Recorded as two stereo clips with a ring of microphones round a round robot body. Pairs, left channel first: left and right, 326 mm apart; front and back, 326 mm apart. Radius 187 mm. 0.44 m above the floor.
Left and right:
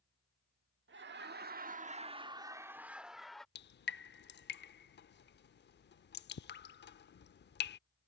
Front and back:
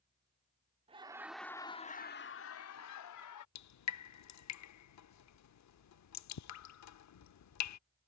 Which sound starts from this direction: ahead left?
Dripping, at 3.5 s.